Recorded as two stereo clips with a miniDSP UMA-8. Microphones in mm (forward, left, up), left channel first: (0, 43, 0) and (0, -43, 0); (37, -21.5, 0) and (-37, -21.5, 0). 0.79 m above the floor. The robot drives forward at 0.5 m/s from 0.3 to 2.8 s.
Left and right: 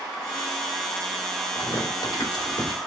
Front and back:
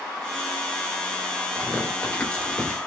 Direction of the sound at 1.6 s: 60° left.